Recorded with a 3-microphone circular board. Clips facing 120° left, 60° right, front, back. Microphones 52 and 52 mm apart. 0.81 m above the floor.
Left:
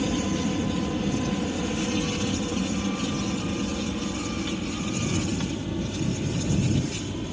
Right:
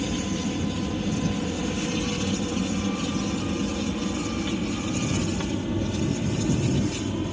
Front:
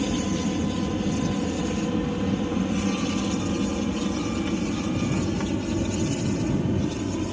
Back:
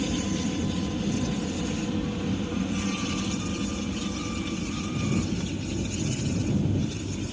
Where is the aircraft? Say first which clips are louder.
Left 2 dB, front 3 dB; 55° left; by 7.3 s 5° left.